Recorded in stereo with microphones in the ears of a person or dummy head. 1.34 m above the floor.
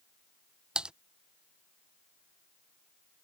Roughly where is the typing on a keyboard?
Centre.